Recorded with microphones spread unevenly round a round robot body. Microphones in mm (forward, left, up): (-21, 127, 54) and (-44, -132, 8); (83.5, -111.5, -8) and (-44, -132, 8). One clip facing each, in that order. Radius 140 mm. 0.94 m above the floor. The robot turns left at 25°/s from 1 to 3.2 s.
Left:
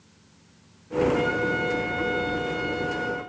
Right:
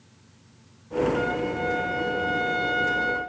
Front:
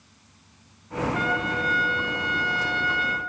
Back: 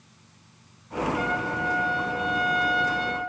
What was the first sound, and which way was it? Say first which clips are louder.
A trumpet: left 1 dB, front 1 dB; 25° left.